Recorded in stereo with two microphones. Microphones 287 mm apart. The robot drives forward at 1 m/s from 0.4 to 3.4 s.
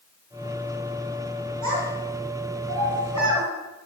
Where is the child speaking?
75° right (ahead or behind), 3 m; by 3.5 s 70° right (ahead or behind), 3.5 m.